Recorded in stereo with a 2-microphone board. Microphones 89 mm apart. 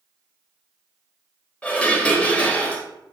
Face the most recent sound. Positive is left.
turn(degrees=15)  # may be behind; listen again after turning